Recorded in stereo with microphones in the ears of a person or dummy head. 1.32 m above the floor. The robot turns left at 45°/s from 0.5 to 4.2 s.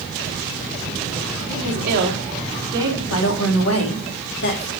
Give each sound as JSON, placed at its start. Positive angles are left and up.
{"t": 1.5, "sound": "a woman speaking", "azimuth_deg": -100, "distance_m": 3.0}
{"t": 3.1, "sound": "a woman speaking", "azimuth_deg": 110, "distance_m": 3.0}